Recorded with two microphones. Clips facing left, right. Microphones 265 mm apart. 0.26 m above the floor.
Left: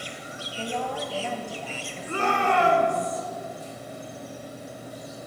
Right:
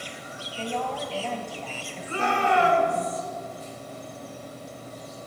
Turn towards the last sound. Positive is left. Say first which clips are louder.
# even
turn(degrees=55)  # may be behind; listen again after turning